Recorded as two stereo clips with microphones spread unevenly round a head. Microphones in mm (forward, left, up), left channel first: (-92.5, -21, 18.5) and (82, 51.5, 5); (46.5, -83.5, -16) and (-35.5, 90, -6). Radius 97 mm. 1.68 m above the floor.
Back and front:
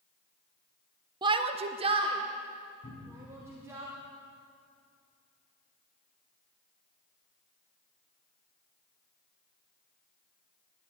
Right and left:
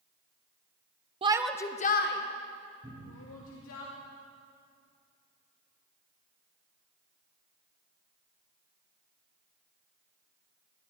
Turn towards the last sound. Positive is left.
turn(degrees=180)